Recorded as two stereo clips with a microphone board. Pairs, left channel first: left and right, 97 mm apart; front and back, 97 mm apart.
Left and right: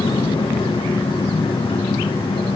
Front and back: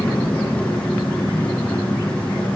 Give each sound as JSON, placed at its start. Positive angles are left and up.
{"t": 0.0, "sound": "an engine running", "azimuth_deg": 80, "distance_m": 4.0}